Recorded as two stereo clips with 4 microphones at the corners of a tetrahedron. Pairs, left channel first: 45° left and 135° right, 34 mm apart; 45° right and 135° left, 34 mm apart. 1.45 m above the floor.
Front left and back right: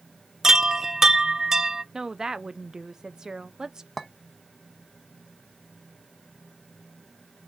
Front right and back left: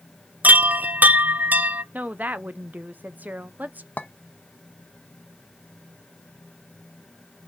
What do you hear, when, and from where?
0.4 s a chime: 150° left, 0.5 m
1.9 s a woman speaking: 155° left, 0.7 m
4.0 s a clink: 40° right, 0.9 m